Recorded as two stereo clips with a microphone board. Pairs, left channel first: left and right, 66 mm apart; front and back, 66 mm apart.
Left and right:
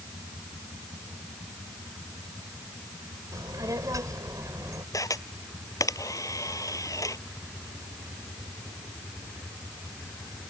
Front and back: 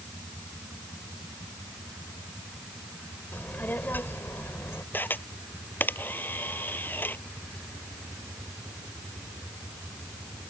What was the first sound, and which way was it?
A child speaking, 65° right.